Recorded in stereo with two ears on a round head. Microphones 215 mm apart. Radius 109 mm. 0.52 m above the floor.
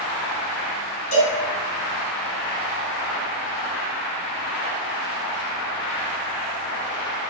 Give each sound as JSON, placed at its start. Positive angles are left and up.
{"t": 1.1, "sound": "a cowbell", "side_deg": 70, "distance_m": 4.0}